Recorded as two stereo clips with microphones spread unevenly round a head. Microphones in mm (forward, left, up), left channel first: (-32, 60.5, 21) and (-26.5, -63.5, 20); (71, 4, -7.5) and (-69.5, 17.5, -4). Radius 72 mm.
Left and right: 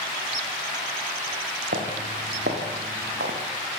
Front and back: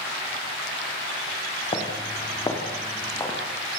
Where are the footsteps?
65° right, 5.5 m; by 3.4 s 85° right, 6.5 m.